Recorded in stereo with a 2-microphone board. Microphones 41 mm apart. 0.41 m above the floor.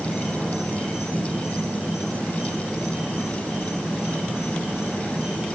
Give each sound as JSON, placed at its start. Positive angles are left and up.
{"t": 0.0, "sound": "an insect", "side_deg": -20, "distance_m": 6.5}